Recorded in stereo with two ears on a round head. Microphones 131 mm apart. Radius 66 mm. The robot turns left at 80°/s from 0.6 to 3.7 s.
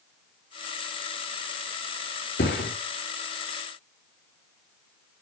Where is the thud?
70° left (ahead or behind), 5 m; by 2.7 s 85° left, 5 m.